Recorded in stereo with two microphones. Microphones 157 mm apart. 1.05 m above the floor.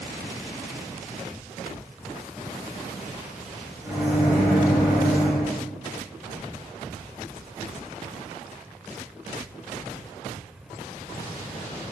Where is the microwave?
10° right (ahead or behind), 0.9 m.